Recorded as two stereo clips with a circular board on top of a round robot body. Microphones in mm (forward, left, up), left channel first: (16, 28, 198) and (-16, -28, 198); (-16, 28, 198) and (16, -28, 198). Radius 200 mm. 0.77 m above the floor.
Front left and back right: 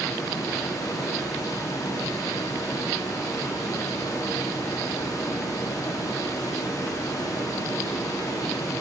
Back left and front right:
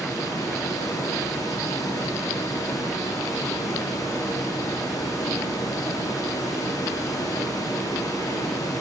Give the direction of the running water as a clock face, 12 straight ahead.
9 o'clock.